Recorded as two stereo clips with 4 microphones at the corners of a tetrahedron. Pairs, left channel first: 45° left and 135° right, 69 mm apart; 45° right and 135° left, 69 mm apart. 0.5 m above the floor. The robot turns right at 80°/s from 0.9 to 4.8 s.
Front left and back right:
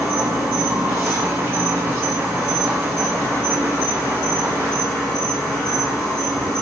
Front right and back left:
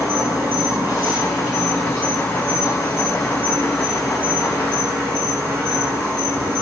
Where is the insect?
155° left, 1.4 m; by 6.6 s 110° left, 1.4 m.